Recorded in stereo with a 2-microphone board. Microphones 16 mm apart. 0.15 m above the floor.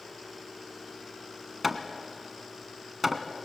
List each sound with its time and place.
1.6 s hammering: 10° right (ahead or behind), 1.4 m